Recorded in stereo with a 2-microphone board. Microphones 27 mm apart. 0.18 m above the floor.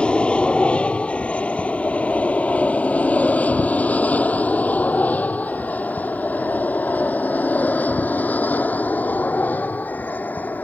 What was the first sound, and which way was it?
An aircraft, 40° left (ahead or behind).